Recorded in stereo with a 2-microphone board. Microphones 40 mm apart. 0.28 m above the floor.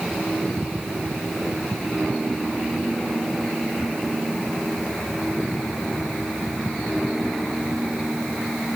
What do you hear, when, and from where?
Only background noise.